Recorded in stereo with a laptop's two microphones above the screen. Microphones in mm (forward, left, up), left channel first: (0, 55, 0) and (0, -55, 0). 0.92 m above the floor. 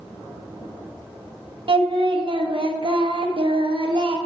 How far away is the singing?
About 1.0 m.